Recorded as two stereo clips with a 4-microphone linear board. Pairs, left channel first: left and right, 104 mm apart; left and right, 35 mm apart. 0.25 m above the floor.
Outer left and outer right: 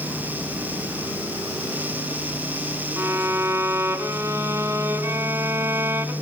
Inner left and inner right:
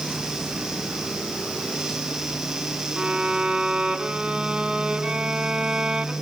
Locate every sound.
3.0 s a violin: 25° right (ahead or behind), 1.5 m